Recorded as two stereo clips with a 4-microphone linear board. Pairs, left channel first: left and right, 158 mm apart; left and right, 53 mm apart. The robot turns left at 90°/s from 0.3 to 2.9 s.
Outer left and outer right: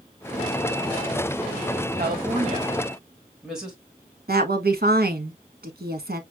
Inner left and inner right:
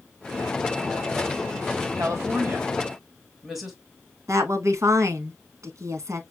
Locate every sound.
1.9 s a woman speaking: 80° right, 3 m; by 3.8 s 5° right (ahead or behind), 3 m
4.3 s a woman speaking: 85° right, 1.3 m